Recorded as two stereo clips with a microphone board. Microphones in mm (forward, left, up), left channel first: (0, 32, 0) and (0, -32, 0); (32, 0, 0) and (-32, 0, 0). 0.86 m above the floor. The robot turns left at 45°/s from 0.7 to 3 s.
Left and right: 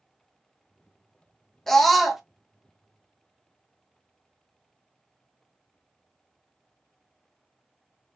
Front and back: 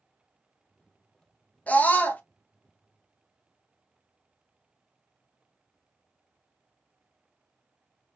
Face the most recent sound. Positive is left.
turn(degrees=-45)